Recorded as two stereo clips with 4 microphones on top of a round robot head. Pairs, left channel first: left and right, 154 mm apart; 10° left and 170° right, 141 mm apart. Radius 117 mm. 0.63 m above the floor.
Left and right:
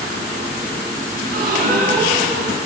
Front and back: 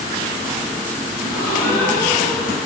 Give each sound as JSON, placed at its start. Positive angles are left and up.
{"t": 1.2, "sound": "a gasp", "azimuth_deg": -65, "distance_m": 7.5}